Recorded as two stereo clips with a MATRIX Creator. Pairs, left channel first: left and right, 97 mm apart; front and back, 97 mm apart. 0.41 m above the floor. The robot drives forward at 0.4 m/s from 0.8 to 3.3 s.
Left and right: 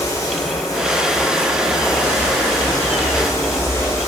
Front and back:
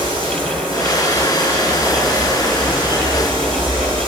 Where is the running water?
145° left, 8 m; by 4.1 s 150° left, 9 m.